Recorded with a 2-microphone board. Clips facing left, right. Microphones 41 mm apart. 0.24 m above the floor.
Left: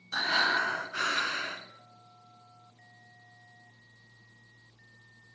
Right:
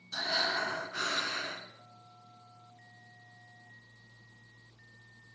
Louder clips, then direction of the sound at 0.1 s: Left 6 dB; 50° left (ahead or behind).